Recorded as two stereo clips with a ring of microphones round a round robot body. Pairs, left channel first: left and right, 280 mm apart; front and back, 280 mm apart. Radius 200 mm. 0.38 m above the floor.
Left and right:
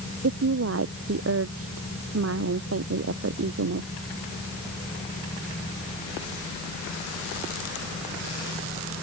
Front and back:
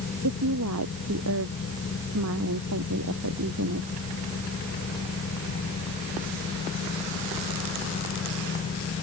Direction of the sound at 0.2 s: 125° right.